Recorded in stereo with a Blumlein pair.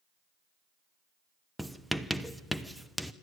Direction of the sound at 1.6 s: Straight ahead.